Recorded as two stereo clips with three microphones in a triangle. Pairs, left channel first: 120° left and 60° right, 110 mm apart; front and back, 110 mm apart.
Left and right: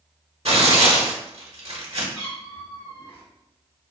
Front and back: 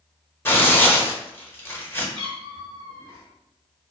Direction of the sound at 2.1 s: 145° left.